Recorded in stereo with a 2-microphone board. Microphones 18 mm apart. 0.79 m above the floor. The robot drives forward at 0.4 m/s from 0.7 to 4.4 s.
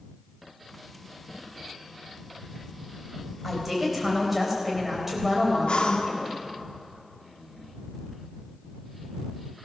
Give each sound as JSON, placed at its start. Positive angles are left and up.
{"t": 3.4, "sound": "a woman speaking", "side_deg": -10, "distance_m": 4.0}
{"t": 5.7, "sound": "breathing", "side_deg": 80, "distance_m": 1.0}